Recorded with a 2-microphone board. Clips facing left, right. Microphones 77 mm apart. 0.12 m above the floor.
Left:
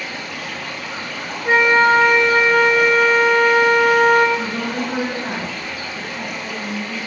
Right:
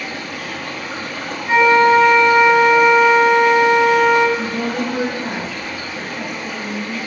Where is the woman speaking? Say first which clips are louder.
Right 2 dB; 30° left (ahead or behind), 1.6 m.